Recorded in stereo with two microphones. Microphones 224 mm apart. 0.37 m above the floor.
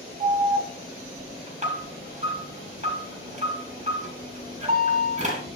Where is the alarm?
30° right (ahead or behind), 4.5 m.